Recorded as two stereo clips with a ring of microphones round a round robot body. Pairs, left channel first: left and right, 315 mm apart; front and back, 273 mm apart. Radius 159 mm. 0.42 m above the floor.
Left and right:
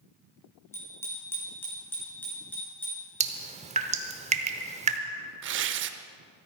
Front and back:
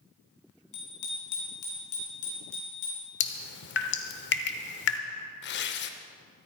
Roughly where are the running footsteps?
I don't hear running footsteps.